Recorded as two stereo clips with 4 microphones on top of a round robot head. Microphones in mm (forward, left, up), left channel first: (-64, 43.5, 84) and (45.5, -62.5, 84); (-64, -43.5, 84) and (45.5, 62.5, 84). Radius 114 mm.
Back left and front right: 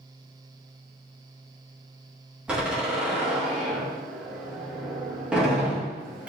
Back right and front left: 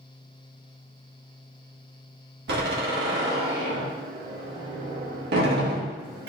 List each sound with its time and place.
2.5 s a door slam: 40° left, 1.8 m